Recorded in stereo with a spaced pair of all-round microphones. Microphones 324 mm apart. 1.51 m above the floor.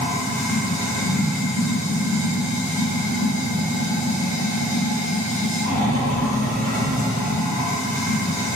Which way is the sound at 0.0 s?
10° left (ahead or behind).